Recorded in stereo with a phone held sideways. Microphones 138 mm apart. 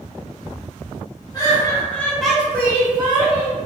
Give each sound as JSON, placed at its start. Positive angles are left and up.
{"t": 1.3, "sound": "laughter", "side_deg": 30, "distance_m": 1.1}